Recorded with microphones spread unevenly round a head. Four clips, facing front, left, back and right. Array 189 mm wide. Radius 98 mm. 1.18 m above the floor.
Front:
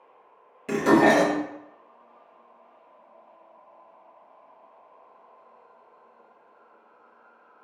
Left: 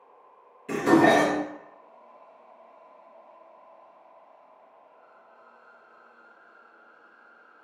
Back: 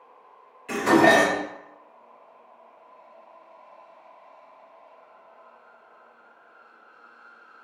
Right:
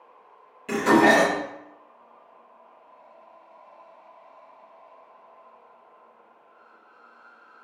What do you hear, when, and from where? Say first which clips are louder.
0.7 s dishes clattering: right 1 dB, even; 15° right, 1.0 m